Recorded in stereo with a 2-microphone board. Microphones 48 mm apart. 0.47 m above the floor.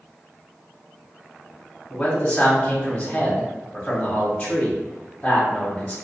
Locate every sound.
1.9 s a man speaking: 15° left (ahead or behind), 1.3 m